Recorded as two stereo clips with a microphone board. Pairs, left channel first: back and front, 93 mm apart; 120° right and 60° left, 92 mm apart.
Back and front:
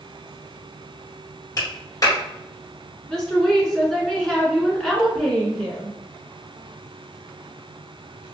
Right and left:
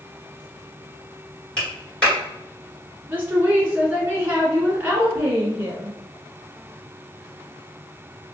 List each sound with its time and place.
1.6 s a clap: 165° left, 1.8 m
3.1 s a woman speaking: 105° left, 1.2 m